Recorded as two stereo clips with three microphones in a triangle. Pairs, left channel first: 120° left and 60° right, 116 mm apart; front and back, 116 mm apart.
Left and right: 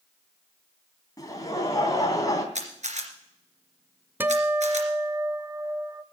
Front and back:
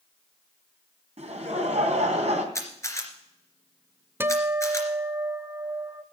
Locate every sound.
1.2 s laughter: 175° left, 3 m
2.5 s a camera shutter: 65° right, 2.5 m
4.2 s a guitar: 125° right, 0.6 m